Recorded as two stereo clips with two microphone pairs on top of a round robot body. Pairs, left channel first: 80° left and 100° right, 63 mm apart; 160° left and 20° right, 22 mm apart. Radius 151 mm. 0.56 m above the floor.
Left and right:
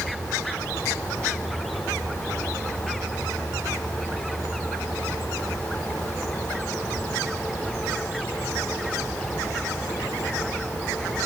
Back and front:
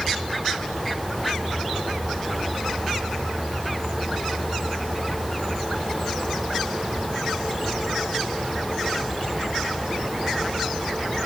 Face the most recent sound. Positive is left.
No sound to turn to.